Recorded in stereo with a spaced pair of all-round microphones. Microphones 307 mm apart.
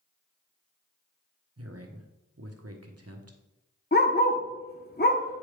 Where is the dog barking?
30° left (ahead or behind), 0.9 m.